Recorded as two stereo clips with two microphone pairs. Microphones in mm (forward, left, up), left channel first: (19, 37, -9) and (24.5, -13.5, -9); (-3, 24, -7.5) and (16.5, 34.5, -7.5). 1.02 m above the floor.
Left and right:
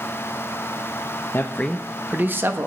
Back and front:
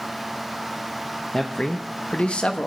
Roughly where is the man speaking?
Behind left.